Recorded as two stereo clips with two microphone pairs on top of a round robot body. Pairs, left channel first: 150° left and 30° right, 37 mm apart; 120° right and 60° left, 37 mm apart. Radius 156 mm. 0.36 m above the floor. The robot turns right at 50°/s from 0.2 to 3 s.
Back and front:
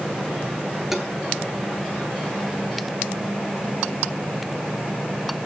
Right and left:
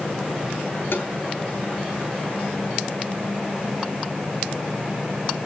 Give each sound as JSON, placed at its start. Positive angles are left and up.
{"t": 0.9, "sound": "tapping", "azimuth_deg": -110, "distance_m": 4.0}